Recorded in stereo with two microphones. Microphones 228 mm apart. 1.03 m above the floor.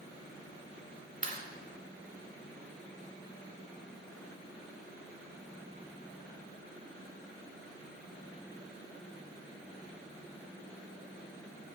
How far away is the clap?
About 2.5 m.